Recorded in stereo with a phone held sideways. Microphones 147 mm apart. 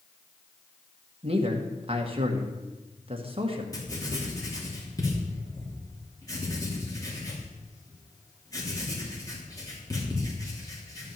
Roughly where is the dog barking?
No dog barking in this recording.